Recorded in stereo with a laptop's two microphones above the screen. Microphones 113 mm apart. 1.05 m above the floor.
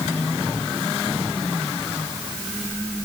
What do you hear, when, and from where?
Only background noise.